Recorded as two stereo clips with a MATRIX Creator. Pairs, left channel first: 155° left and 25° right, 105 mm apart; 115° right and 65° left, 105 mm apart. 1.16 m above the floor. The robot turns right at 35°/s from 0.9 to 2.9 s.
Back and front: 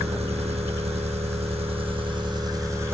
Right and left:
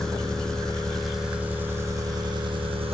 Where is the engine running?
25° right, 1.6 m; by 2.9 s 45° left, 1.6 m.